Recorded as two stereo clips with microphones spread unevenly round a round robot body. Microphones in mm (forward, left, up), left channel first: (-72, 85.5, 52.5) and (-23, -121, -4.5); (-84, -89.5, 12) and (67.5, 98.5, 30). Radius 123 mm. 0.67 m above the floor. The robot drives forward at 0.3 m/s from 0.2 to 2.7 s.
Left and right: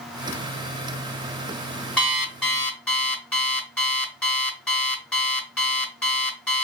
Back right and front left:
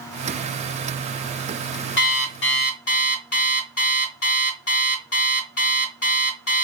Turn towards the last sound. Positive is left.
turn(degrees=-170)